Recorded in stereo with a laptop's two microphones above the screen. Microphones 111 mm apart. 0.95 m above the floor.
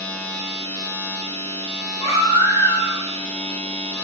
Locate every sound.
0.0 s a machine running: 15° left (ahead or behind), 1.9 m
2.0 s a baby crying: 70° left (ahead or behind), 2.0 m